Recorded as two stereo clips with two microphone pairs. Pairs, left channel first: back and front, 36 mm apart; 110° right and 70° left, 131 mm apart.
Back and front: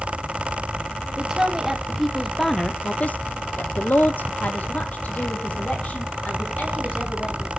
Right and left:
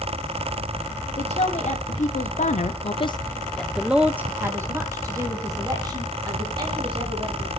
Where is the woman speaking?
75° right, 1.5 m; by 7.5 s 130° left, 3 m.